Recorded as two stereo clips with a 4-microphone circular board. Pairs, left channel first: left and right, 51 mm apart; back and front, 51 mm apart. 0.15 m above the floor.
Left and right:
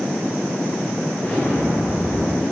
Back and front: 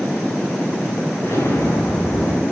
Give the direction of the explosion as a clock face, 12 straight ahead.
7 o'clock.